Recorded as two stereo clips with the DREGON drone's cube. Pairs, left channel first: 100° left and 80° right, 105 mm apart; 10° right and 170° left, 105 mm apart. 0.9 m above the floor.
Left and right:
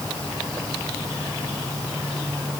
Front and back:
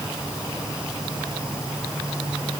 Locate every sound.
Only background noise.